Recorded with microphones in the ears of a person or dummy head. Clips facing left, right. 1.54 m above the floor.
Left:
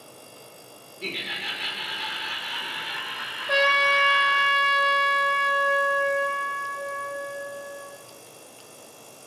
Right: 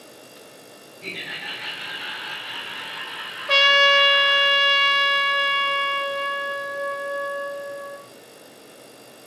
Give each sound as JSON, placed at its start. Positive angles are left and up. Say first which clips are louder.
{"t": 1.0, "sound": "laughter", "louder": "left 2 dB", "side_deg": 45, "distance_m": 2.5}
{"t": 3.5, "sound": "a trumpet", "louder": "right 3 dB", "side_deg": -45, "distance_m": 1.1}